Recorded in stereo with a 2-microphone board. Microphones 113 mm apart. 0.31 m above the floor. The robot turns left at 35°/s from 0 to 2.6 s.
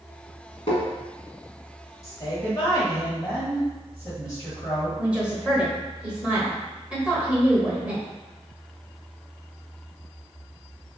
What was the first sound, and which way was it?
Tapping, 55° left (ahead or behind).